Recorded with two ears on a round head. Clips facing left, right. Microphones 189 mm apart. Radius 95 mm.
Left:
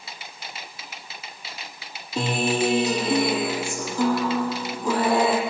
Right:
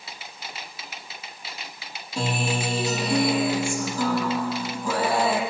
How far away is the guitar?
About 5 m.